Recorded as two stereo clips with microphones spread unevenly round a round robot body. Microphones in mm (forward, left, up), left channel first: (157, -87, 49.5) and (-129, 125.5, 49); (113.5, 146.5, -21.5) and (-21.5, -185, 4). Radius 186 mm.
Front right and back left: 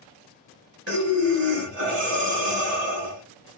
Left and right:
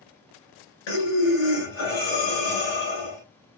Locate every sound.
0.9 s breathing: 95° left, 2 m